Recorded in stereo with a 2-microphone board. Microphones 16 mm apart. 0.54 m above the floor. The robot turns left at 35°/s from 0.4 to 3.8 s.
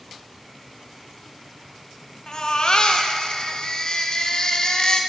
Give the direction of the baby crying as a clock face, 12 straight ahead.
8 o'clock.